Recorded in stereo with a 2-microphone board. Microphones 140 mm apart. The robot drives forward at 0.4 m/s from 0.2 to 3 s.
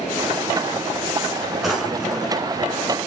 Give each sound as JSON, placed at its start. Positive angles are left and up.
{"t": 1.6, "sound": "a drawer", "side_deg": 0, "distance_m": 2.0}